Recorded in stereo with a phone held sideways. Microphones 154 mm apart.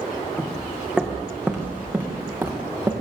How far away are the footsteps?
About 3.5 m.